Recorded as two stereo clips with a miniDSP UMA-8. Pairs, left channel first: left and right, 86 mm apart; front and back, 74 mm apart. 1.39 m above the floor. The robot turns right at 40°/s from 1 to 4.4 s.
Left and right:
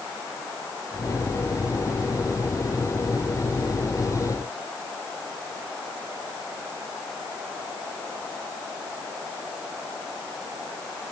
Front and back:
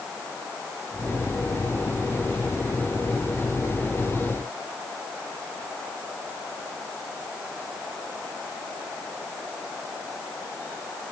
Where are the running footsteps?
I don't hear running footsteps.